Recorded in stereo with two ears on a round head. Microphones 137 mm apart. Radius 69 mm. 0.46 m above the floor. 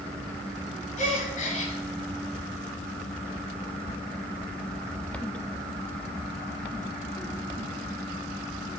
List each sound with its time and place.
1.0 s a gasp: 55° left (ahead or behind), 1.9 m